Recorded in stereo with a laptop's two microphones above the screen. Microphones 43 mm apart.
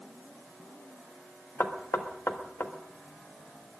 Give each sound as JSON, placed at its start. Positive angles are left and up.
{"t": 1.6, "sound": "knocking", "side_deg": 70, "distance_m": 1.4}